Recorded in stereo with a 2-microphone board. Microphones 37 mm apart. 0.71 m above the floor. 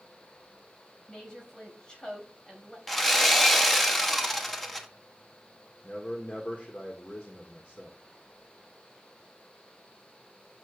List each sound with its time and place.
1.1 s a woman speaking: 20° left (ahead or behind), 4.5 m
2.9 s sawing: 5° left (ahead or behind), 1.3 m
5.8 s a man speaking: 45° left (ahead or behind), 1.9 m